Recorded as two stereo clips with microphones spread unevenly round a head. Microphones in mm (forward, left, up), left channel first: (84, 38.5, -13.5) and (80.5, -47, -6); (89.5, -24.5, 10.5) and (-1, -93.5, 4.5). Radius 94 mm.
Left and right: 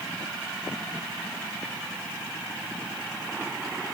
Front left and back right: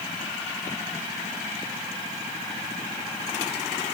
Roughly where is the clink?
I don't hear a clink.